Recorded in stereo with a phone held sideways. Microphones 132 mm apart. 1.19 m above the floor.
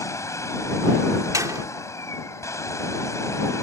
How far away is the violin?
No violin in this recording.